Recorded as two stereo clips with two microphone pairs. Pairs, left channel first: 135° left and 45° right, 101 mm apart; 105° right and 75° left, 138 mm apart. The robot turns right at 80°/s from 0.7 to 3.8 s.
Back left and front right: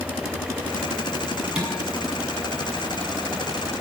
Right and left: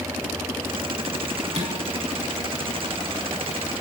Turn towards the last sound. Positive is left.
turn(degrees=-145)